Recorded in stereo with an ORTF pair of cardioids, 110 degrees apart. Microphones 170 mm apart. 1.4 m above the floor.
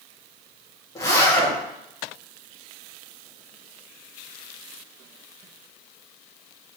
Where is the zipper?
20° left, 1.3 m.